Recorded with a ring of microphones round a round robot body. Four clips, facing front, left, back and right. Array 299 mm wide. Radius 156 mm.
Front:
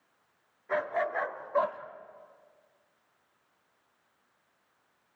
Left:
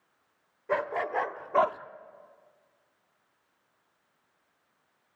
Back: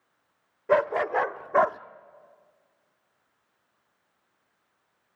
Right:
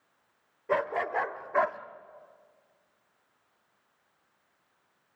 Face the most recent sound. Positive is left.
turn(degrees=155)